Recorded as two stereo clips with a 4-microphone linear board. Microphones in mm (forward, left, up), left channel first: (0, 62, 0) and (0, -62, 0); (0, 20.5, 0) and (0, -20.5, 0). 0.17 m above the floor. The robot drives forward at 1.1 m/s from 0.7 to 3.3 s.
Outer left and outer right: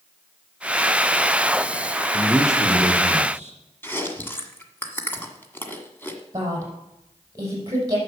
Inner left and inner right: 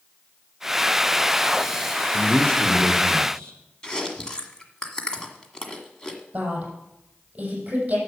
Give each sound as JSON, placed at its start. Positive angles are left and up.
{"t": 2.1, "sound": "a man speaking", "side_deg": 25, "distance_m": 3.0}
{"t": 3.8, "sound": "chewing", "side_deg": 15, "distance_m": 1.6}
{"t": 6.3, "sound": "a woman speaking", "side_deg": -30, "distance_m": 6.0}